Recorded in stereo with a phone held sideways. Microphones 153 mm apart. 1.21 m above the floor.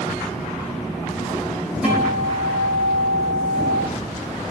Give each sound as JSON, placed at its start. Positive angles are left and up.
{"t": 1.8, "sound": "a guitar", "side_deg": -10, "distance_m": 4.5}